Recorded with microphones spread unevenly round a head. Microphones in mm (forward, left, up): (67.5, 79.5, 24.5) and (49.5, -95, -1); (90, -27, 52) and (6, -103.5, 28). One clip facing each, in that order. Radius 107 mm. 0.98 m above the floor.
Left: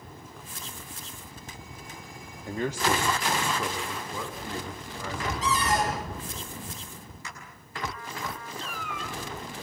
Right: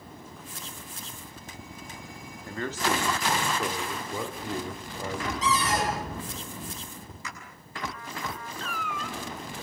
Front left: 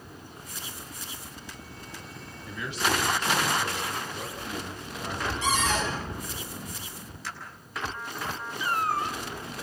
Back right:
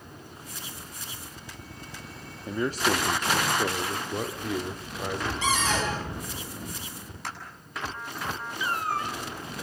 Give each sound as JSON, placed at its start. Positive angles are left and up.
{"t": 2.5, "sound": "a man speaking", "azimuth_deg": 160, "distance_m": 1.6}
{"t": 5.4, "sound": "a cupboard door", "azimuth_deg": -140, "distance_m": 9.5}
{"t": 7.2, "sound": "a clap", "azimuth_deg": -110, "distance_m": 7.5}
{"t": 8.6, "sound": "a cat meowing", "azimuth_deg": -150, "distance_m": 1.2}